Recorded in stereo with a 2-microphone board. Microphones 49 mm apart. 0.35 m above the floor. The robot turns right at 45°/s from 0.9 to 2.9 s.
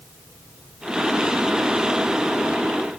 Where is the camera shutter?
No camera shutter in this recording.